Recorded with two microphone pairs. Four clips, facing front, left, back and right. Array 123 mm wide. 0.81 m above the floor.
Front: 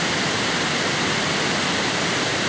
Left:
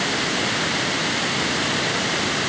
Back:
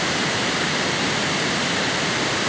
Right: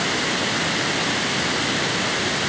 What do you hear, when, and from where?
Only background noise.